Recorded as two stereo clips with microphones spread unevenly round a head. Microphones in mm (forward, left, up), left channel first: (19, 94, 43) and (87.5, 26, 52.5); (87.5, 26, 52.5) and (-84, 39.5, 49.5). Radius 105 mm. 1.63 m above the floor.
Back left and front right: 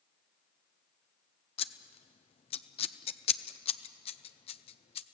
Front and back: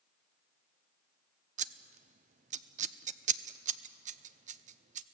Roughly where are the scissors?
Behind left.